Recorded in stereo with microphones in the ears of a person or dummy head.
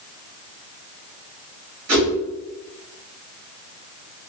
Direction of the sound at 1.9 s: 50° right (ahead or behind).